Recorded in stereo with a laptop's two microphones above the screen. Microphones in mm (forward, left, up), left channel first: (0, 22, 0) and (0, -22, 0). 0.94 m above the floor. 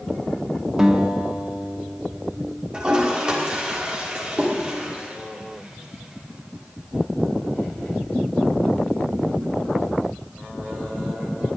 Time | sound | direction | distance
0.8 | a guitar | 15° right (ahead or behind) | 0.8 m
2.7 | a toilet flushing | 20° right (ahead or behind) | 1.3 m